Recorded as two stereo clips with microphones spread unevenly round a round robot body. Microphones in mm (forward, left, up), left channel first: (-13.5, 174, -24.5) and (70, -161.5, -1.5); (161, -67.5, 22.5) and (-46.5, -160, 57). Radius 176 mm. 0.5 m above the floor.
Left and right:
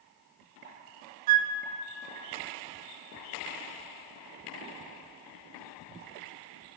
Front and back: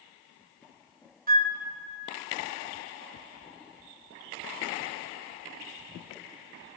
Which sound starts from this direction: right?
A flute, at 1.3 s.